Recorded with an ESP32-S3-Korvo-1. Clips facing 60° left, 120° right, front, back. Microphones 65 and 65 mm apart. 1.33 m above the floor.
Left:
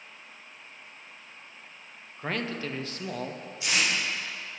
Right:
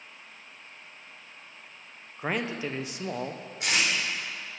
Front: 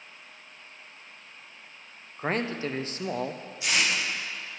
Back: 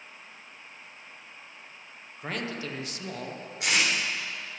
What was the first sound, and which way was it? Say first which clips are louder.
A man speaking: right 2 dB, front 5 dB; 45° right.